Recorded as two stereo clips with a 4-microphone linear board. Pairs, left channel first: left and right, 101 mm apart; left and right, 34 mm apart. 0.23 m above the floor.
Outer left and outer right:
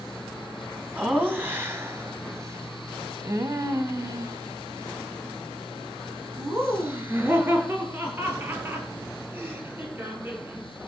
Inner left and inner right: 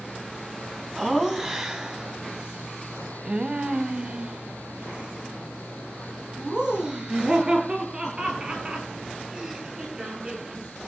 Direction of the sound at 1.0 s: 15° right (ahead or behind).